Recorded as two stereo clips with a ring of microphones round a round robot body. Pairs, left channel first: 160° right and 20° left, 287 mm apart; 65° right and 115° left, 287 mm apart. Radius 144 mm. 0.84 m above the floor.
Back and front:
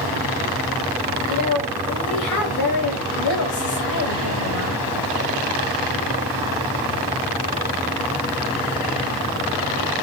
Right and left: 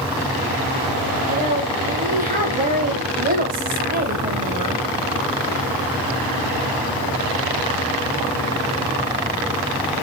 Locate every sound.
1.2 s a woman speaking: 175° left, 4 m